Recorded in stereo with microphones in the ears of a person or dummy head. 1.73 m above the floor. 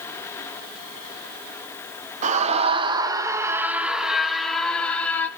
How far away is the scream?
About 1.8 m.